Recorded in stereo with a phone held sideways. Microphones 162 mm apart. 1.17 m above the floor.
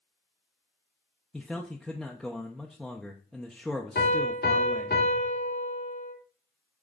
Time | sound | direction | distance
1.3 | a man speaking | centre (ahead or behind) | 0.9 m
4.0 | a piano | 90° left | 2.5 m